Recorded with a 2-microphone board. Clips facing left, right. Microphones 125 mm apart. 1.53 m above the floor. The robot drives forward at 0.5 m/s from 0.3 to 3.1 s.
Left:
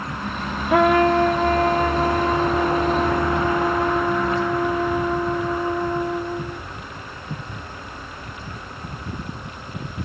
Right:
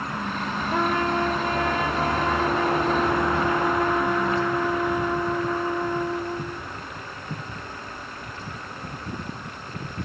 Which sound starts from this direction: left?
A trumpet, at 0.7 s.